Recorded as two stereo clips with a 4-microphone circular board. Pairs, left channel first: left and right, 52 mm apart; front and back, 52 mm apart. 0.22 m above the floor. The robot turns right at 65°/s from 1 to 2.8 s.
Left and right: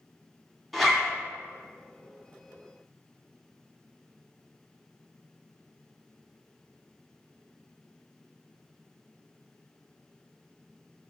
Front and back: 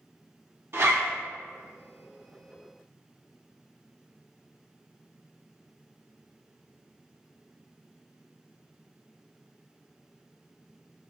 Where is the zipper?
Straight behind, 0.8 m; by 1.1 s 170° right, 0.8 m.